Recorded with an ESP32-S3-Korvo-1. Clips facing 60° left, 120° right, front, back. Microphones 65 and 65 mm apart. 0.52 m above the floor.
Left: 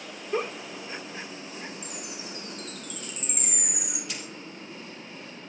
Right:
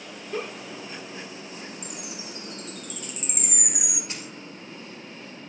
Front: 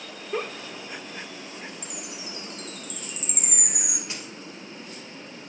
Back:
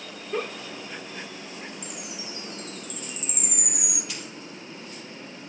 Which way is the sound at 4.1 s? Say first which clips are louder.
Right 1 dB, even; 60° right.